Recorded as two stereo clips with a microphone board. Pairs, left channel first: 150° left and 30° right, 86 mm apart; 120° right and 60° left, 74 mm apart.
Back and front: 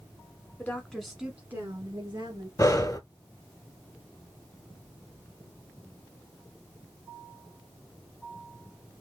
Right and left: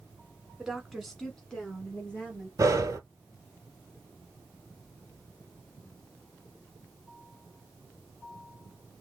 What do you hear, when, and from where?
0.6 s a woman speaking: 135° left, 1.4 m; by 2.5 s 50° right, 2 m
2.6 s breathing: 100° left, 0.8 m